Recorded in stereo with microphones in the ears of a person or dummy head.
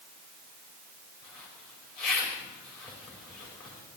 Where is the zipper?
Centre (ahead or behind), 5 m.